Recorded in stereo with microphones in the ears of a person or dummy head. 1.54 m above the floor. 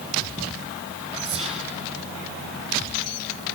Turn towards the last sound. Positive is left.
turn(degrees=-30)  # may be behind; listen again after turning